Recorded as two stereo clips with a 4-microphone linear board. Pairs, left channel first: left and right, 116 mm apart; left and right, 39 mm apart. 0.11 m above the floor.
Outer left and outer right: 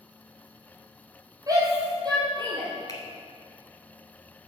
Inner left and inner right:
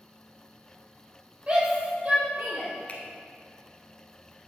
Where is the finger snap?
30° left (ahead or behind), 1.4 m.